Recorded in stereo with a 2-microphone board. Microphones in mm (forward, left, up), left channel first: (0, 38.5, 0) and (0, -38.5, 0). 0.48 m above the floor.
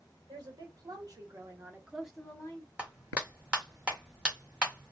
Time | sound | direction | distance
0.3 | a woman speaking | 60° right (ahead or behind) | 1.6 m
2.8 | a clap | 15° right (ahead or behind) | 1.0 m